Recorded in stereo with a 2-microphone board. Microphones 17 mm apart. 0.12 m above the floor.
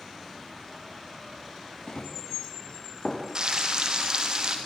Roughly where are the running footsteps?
Left.